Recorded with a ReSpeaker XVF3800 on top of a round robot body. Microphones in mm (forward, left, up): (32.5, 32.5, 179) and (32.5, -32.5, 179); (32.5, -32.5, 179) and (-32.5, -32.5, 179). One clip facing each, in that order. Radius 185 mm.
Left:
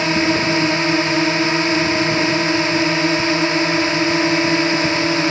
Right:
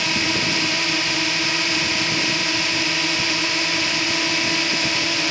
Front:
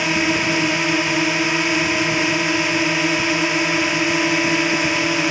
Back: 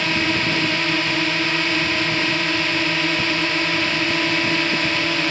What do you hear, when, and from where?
0.0 s a drone: 70° left